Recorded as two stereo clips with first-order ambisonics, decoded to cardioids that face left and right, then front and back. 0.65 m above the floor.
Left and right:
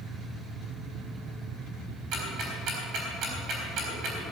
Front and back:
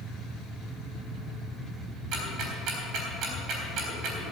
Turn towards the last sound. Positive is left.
turn(degrees=-135)